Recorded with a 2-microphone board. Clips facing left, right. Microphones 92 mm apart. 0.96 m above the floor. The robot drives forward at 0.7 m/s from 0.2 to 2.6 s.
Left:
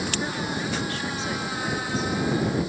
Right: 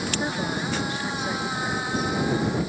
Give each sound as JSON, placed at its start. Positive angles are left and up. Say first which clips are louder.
{"t": 0.2, "sound": "a woman speaking", "louder": "right 1 dB", "side_deg": -25}